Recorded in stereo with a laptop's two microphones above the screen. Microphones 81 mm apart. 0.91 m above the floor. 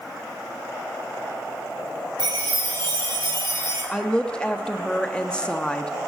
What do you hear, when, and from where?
2.2 s a chime: 75° right (ahead or behind), 6.5 m
3.9 s a woman speaking: 10° left (ahead or behind), 1.5 m